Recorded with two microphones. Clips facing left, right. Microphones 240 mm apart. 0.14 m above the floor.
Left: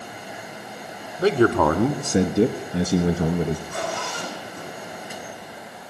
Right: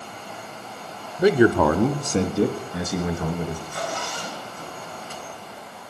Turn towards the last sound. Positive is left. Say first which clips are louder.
# left 1 dB
turn(degrees=65)  # may be behind; listen again after turning